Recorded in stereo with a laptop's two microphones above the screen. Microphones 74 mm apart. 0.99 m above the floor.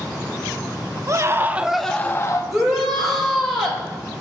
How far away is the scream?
About 1.0 m.